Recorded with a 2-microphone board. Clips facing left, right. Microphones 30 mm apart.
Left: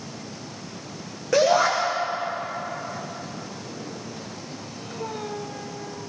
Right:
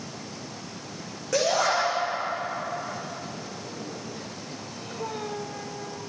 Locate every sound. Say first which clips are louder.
1.3 s a shout: left 5 dB; 20° left (ahead or behind), 6 m